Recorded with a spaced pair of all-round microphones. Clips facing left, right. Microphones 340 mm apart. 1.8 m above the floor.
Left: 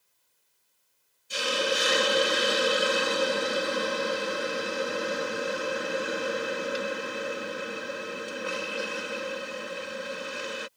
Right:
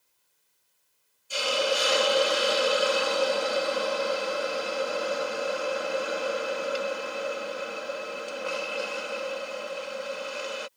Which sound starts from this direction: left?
A hiss, at 1.3 s.